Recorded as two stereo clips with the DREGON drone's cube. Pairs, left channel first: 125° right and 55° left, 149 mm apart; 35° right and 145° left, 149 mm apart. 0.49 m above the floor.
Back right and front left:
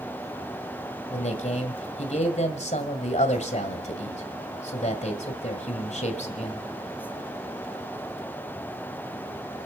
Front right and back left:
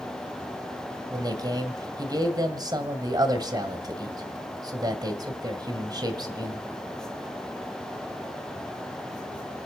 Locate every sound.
1.1 s a man speaking: 155° right, 1.9 m